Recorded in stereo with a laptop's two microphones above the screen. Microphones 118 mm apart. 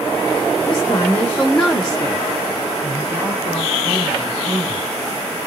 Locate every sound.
0.7 s a woman speaking: 35° left (ahead or behind), 1.3 m; by 4.8 s 40° right (ahead or behind), 3.5 m